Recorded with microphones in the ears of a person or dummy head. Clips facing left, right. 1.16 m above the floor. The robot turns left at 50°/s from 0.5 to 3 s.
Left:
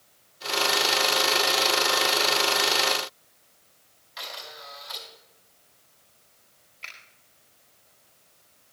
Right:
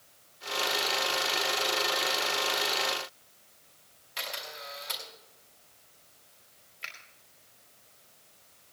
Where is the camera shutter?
35° right (ahead or behind), 4.5 m.